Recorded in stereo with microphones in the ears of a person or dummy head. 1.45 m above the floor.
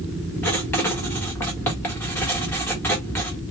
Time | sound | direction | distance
0.4 | writing | 10° left (ahead or behind) | 1.0 m